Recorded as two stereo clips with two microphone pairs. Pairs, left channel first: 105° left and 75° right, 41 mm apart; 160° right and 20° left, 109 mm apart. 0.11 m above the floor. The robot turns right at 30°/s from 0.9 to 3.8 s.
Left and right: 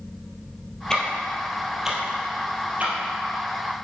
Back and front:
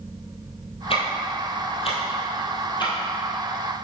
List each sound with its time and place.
0.9 s ticking: straight behind, 2.5 m; by 2.9 s 120° right, 2.5 m